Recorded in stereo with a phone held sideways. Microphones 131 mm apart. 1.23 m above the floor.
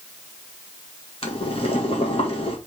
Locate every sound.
1.2 s boiling: 45° left (ahead or behind), 1.9 m